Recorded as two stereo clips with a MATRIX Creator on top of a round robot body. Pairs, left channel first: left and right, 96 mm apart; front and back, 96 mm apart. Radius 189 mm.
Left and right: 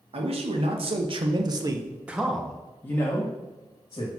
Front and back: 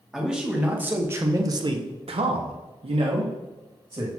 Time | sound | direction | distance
0.1 | a man speaking | 95° right | 1.7 m